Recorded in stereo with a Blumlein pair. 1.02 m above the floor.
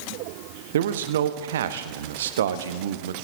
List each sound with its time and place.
0.7 s a man speaking: 60° right, 1.0 m